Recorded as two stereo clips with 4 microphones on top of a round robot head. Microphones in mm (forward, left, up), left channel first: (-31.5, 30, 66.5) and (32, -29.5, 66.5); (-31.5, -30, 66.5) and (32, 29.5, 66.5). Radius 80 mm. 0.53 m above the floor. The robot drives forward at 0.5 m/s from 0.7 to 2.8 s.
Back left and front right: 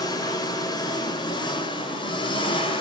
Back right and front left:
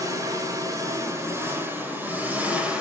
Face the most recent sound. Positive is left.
turn(degrees=120)